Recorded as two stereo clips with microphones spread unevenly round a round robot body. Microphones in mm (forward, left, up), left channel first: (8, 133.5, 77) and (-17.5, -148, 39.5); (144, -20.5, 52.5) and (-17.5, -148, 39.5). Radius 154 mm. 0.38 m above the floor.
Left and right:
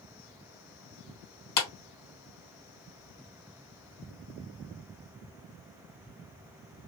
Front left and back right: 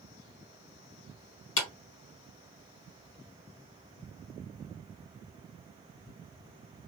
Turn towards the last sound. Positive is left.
turn(degrees=55)